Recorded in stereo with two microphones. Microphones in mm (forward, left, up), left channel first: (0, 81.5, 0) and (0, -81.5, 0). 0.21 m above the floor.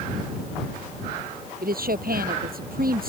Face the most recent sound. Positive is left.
turn(degrees=-70)  # may be behind; listen again after turning